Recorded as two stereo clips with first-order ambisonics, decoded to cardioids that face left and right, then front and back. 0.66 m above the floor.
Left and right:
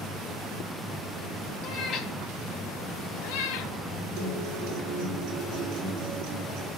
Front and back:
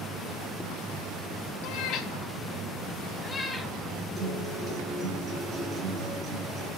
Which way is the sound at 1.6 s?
40° left.